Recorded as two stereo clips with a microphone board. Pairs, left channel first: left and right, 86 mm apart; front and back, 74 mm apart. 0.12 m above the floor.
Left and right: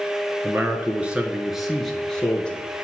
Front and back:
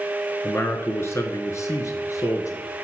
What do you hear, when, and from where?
0.4 s a man speaking: 40° right, 1.6 m; by 2.9 s 25° left, 2 m